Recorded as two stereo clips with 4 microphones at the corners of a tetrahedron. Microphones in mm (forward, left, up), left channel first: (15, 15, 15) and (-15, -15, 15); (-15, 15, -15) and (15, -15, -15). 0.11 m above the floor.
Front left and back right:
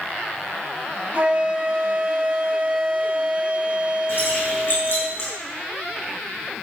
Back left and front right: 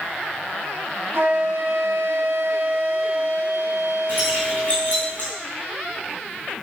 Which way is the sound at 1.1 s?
80° right.